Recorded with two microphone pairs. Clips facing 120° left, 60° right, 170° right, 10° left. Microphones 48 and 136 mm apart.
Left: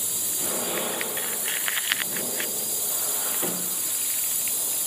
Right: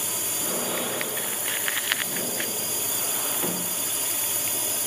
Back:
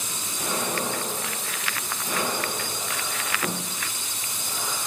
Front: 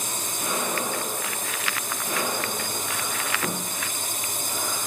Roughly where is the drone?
Ahead right.